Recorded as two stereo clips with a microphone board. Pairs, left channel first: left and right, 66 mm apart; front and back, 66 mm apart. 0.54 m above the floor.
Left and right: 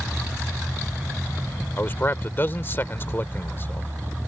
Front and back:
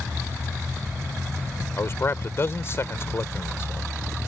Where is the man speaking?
40° left.